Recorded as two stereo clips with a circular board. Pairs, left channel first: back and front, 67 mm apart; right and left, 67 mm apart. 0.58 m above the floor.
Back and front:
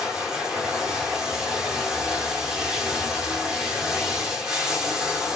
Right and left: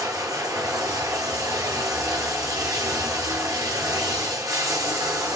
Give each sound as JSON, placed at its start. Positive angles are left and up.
{"t": 0.0, "sound": "running water", "azimuth_deg": 80, "distance_m": 1.1}